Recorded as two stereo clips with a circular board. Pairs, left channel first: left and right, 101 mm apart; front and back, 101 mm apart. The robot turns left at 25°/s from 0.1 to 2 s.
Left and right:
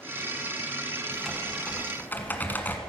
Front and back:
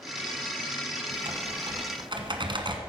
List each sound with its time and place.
1.1 s typing on a keyboard: straight behind, 1.6 m; by 2.8 s 160° left, 1.6 m